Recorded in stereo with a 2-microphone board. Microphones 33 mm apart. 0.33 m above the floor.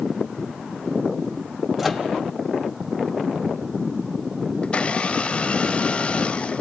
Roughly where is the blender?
Left.